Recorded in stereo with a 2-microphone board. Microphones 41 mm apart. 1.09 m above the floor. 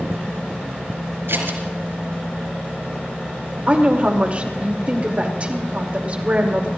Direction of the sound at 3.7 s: 35° right (ahead or behind).